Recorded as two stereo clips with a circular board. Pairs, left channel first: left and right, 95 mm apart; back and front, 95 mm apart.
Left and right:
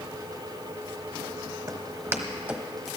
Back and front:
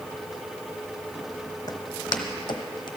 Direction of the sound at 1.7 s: 135° right.